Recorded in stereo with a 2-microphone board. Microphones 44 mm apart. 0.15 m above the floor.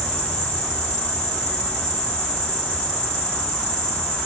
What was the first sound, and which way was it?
An insect, 30° left (ahead or behind).